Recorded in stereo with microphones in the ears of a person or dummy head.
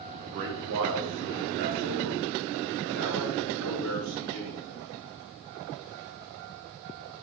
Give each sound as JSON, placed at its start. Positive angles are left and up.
{"t": 0.2, "sound": "a man speaking", "side_deg": -40, "distance_m": 1.0}